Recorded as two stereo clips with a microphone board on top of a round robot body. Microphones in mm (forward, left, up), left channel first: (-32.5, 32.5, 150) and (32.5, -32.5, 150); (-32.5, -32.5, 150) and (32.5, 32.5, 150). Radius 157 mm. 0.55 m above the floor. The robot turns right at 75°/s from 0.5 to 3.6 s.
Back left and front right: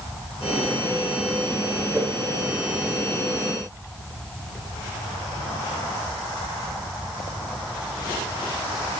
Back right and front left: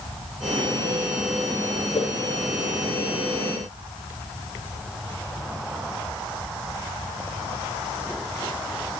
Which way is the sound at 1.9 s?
110° right.